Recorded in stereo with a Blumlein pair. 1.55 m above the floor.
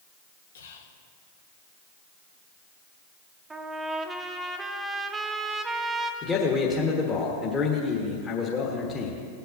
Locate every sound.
0.6 s whispering: 65° left, 1.2 m
3.5 s a trumpet: 10° right, 0.8 m
6.2 s a man speaking: 20° left, 1.5 m